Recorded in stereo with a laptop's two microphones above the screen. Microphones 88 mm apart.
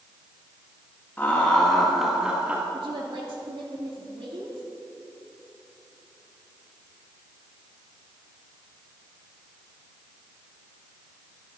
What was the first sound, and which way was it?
Laughter, 20° left (ahead or behind).